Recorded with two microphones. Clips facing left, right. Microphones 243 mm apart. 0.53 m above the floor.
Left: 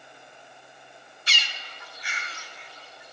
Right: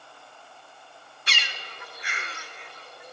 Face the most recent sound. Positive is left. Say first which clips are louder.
# right 3 dB
turn(degrees=-60)  # may be behind; listen again after turning